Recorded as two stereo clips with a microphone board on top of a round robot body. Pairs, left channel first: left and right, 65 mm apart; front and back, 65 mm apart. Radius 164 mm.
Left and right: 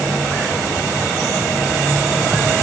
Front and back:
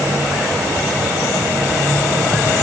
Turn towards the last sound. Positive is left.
No sound to turn to.